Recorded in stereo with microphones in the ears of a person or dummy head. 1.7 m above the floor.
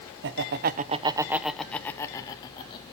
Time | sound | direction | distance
0.2 | laughter | 65° right (ahead or behind) | 1.0 m